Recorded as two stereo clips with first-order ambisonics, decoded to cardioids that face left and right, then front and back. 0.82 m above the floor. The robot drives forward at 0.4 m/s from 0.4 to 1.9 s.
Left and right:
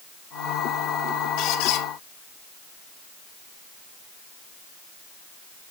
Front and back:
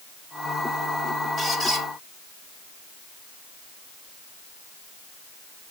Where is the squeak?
100° left, 2.5 m; by 1.9 s 105° left, 2.5 m.